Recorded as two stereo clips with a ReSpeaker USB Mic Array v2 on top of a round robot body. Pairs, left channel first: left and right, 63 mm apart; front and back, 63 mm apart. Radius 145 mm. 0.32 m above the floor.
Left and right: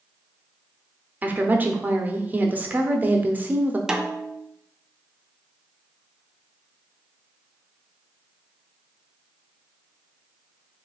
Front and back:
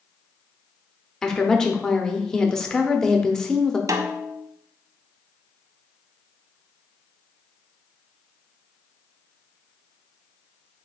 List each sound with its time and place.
1.2 s a woman speaking: 70° right, 0.9 m
3.9 s a snare drum: 170° right, 0.6 m